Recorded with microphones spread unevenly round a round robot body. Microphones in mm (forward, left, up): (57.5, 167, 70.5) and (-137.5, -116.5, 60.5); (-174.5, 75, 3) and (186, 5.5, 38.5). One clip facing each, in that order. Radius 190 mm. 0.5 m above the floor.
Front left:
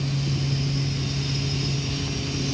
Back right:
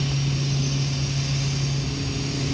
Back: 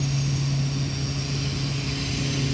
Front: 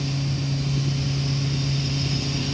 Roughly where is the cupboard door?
No cupboard door in this recording.